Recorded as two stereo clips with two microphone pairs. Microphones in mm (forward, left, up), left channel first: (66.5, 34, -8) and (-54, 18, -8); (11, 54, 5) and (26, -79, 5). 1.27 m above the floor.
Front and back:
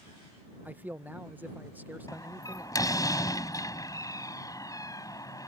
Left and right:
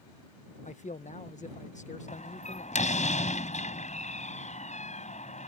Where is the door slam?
70° left.